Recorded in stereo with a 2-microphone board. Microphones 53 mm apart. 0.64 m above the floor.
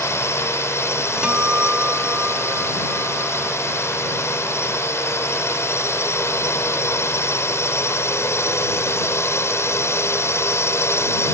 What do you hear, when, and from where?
0.0 s a drone: 60° left (ahead or behind)
1.2 s a guitar: 15° right (ahead or behind)